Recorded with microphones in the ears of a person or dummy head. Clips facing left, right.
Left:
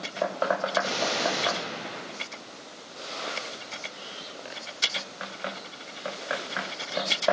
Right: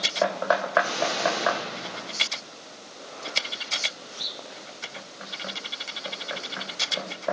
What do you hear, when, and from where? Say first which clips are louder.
0.8 s an explosion: right 2 dB; 80° left, 5 m